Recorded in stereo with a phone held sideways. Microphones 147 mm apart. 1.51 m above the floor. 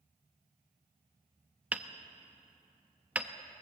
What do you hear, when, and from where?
1.7 s hammering: 10° right (ahead or behind), 0.9 m